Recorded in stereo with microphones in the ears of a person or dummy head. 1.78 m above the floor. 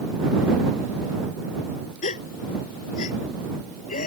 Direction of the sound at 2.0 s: 50° left (ahead or behind).